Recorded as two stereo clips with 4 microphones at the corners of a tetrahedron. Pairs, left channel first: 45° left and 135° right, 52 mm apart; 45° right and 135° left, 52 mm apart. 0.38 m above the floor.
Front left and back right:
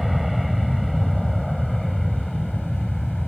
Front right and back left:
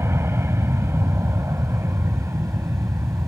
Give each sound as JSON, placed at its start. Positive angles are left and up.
{"t": 0.0, "sound": "an aircraft", "azimuth_deg": 135}